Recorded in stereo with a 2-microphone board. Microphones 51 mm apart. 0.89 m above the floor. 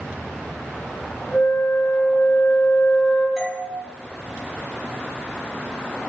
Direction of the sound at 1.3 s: 45° left (ahead or behind).